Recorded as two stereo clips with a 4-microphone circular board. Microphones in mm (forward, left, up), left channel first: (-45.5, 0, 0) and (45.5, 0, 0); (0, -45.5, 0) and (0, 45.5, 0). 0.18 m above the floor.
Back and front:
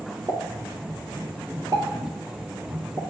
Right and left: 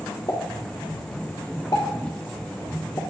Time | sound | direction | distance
0.3 | a pop | 45° right | 2.5 m